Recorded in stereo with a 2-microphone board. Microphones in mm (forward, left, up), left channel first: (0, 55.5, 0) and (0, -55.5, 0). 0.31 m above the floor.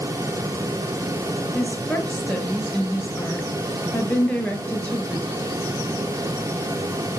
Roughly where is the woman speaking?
Centre.